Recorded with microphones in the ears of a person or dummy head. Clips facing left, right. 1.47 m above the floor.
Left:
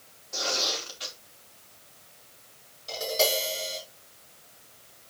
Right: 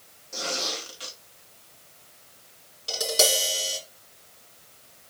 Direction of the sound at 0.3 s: 40° right (ahead or behind).